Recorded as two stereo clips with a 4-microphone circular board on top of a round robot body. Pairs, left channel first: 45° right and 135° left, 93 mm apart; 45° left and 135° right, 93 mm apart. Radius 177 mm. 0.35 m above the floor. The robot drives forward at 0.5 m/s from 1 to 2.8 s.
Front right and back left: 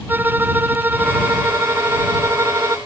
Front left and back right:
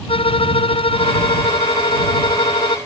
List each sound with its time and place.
0.1 s a violin: 65° left; by 2.8 s 75° left